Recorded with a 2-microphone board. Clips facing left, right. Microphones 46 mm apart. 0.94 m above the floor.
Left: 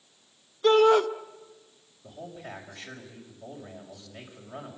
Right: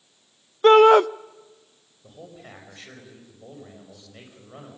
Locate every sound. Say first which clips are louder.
0.6 s a shout: right 7 dB; 45° right (ahead or behind), 0.6 m
2.0 s a man speaking: left 2 dB; centre (ahead or behind), 6 m